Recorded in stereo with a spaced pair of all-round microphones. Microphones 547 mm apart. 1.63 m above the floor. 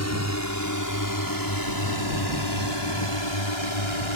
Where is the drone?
30° left (ahead or behind); by 4.2 s 60° left (ahead or behind).